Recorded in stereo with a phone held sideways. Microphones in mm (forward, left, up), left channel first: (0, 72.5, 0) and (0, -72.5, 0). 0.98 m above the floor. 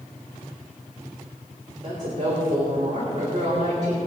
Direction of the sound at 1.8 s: 50° right (ahead or behind).